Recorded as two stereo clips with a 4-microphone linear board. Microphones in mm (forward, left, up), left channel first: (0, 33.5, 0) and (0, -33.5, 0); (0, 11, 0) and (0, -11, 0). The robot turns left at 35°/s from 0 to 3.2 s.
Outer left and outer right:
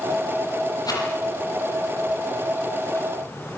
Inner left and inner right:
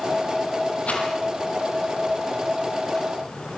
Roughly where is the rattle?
Left.